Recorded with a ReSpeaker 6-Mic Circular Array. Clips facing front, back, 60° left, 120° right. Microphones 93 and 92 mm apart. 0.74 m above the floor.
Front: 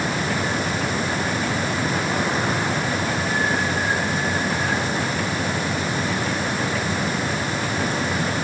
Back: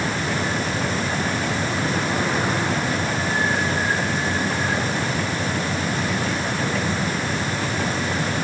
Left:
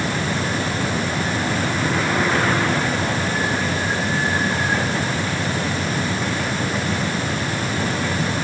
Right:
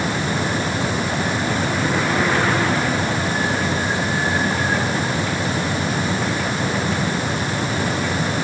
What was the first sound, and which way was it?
Only background noise.